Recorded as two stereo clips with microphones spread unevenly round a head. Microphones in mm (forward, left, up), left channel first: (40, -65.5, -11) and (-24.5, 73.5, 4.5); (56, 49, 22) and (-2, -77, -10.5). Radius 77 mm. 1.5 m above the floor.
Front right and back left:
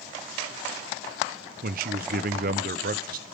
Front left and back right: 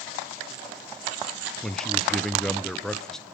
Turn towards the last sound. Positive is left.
turn(degrees=155)